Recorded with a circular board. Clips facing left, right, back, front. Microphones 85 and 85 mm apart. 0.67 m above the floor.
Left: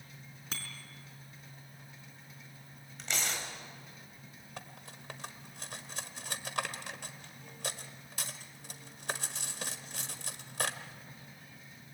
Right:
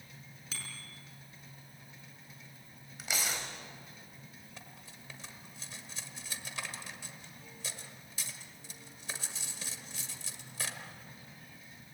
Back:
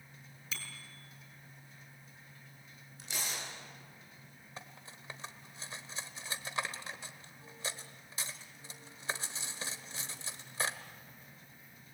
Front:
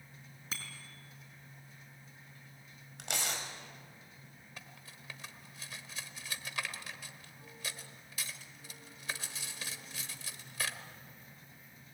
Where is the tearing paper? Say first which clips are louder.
Even, front 3 dB; 5° right, 4.5 m.